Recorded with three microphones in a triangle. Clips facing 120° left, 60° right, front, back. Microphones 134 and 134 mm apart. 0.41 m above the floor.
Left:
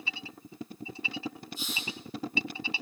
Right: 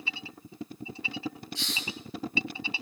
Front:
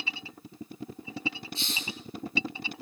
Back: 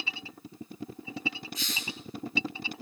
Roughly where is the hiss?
Ahead right.